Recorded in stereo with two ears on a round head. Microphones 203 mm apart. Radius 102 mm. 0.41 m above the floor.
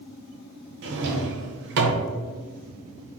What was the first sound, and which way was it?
A drawer, 55° right (ahead or behind).